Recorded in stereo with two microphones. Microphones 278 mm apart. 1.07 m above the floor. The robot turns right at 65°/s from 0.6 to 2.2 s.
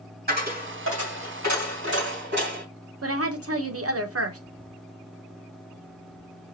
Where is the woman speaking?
55° right (ahead or behind), 0.9 m.